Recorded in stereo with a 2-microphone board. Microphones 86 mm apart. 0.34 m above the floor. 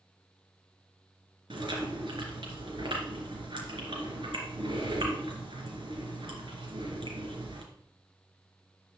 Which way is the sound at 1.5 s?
70° right (ahead or behind).